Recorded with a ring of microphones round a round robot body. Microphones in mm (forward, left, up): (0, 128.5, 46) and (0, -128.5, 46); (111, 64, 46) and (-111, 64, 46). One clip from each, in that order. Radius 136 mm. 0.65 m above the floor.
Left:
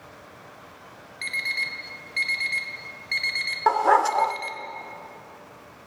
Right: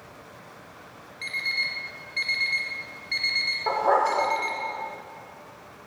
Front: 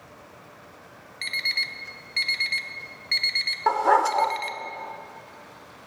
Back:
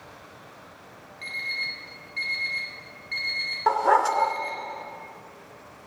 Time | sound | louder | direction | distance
1.2 | an alarm clock | even, front 4 dB | 20° left | 1.0 m
3.7 | a dog barking | left 4 dB, even | 85° left | 0.5 m